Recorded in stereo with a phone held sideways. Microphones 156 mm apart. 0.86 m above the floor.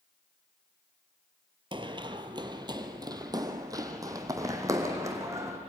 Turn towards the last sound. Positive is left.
turn(degrees=-20)  # may be behind; listen again after turning